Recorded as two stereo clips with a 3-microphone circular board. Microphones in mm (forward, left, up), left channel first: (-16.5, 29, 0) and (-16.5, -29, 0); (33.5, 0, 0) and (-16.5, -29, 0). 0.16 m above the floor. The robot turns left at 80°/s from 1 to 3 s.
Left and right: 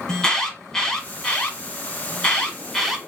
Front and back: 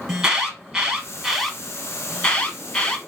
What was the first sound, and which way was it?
An alarm, 150° left.